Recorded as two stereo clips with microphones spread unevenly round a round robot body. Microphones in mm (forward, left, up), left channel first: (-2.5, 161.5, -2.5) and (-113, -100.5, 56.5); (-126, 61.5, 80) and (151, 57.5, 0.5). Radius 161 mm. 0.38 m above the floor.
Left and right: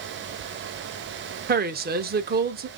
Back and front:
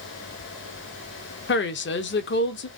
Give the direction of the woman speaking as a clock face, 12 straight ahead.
5 o'clock.